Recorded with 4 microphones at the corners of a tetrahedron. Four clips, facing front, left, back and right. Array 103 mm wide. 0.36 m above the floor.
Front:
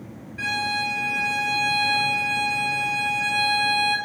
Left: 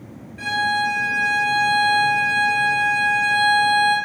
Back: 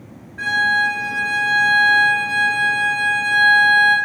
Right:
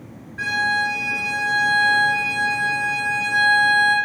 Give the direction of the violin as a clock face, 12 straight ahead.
4 o'clock.